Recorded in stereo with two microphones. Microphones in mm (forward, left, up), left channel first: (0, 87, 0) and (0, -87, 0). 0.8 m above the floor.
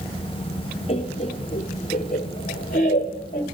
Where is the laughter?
35° left (ahead or behind), 1.3 m; by 3.4 s 50° left (ahead or behind), 2.5 m.